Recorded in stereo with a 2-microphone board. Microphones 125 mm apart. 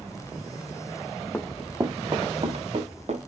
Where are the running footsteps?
15° left (ahead or behind), 0.6 m; by 3.3 s 65° right (ahead or behind), 2 m.